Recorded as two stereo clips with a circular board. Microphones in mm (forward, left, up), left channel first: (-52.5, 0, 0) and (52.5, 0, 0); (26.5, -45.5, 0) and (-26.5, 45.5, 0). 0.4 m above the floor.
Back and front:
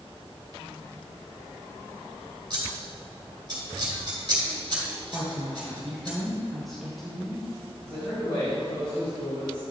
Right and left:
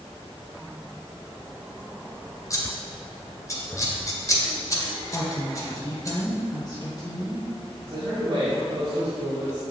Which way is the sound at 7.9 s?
150° left.